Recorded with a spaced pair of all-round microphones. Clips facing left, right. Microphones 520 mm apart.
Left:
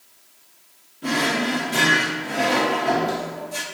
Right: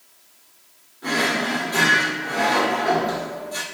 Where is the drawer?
50° left (ahead or behind), 1.8 m.